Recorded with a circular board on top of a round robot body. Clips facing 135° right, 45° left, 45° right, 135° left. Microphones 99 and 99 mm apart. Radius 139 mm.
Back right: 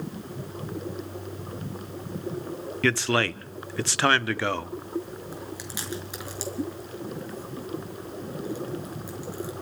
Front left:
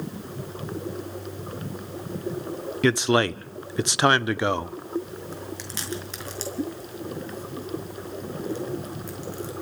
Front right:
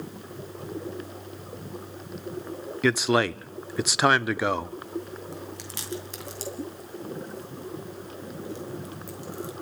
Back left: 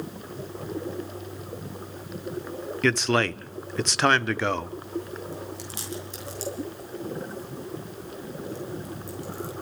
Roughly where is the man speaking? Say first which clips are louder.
Front left 4 dB, front right 1 dB; ahead.